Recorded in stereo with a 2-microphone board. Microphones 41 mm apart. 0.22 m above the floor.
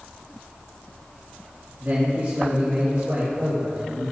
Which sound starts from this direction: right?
A man speaking, at 1.8 s.